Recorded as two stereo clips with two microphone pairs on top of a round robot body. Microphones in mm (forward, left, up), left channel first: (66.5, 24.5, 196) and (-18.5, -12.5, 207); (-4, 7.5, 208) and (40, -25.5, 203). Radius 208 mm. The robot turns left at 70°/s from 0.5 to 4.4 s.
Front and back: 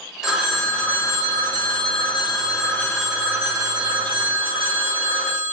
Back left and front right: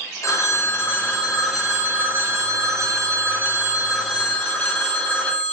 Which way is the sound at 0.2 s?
115° left.